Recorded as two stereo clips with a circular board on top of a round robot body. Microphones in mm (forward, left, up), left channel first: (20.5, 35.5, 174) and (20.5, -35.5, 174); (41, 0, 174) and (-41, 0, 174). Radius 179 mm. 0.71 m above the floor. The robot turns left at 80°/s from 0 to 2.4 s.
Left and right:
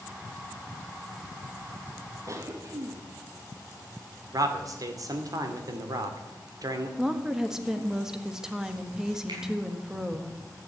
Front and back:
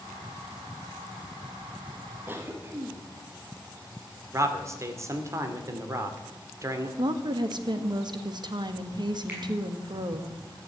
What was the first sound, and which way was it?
A cough, 115° right.